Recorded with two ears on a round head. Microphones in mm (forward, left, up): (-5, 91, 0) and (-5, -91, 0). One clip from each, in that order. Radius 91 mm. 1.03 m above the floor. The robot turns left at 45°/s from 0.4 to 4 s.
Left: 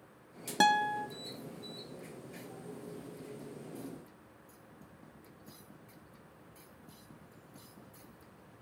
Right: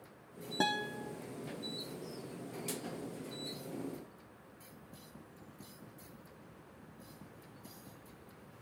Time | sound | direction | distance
0.6 | a guitar | 50° left (ahead or behind) | 0.7 m